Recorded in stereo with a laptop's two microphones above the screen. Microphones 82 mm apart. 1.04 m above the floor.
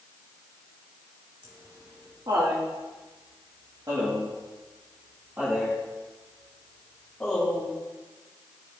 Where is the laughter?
70° right (ahead or behind), 2.5 m; by 7.7 s 10° left (ahead or behind), 2.5 m.